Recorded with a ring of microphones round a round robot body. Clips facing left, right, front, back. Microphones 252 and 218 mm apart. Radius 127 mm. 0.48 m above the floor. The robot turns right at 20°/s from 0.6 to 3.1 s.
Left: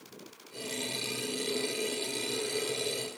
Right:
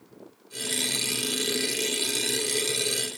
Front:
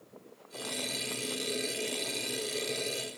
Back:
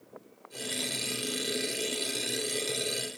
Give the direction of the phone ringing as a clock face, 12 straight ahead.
I don't hear a phone ringing.